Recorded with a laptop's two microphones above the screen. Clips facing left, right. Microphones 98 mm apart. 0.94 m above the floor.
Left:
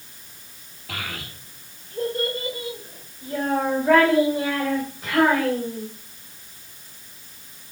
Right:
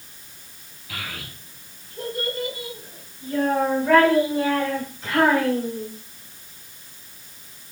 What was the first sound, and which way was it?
A child speaking, 65° left (ahead or behind).